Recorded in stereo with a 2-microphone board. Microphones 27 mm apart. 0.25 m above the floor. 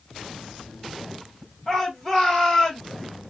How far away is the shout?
About 1.8 m.